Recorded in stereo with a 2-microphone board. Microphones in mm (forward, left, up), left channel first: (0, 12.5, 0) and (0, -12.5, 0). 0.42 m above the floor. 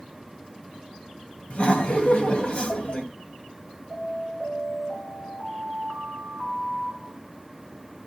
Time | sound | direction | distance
1.5 | laughter | 45° left (ahead or behind) | 2 m
3.9 | an alarm | 30° left (ahead or behind) | 4.5 m